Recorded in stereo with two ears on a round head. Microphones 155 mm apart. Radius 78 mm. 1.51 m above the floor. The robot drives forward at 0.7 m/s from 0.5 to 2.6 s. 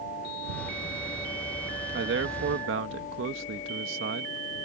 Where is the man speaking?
70° right (ahead or behind); by 4.3 s 80° right.